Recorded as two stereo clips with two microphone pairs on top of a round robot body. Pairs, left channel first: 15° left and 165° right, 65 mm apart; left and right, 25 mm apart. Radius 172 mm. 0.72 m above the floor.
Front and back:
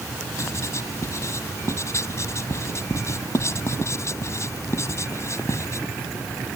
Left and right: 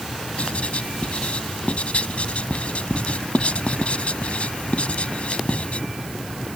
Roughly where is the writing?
Ahead left.